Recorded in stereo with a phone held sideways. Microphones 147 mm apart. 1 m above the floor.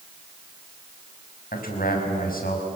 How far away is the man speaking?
About 5.5 m.